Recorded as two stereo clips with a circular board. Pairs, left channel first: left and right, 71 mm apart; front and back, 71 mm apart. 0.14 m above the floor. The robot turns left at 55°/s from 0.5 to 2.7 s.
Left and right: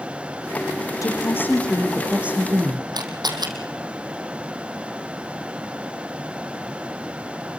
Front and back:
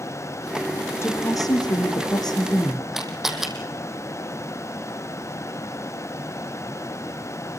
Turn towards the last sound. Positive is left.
turn(degrees=-95)